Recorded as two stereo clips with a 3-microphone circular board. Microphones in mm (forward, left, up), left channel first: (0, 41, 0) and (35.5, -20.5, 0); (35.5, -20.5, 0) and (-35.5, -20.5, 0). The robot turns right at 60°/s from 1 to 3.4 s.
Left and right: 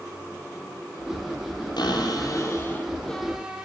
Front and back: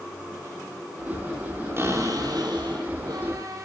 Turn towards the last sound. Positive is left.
turn(degrees=-135)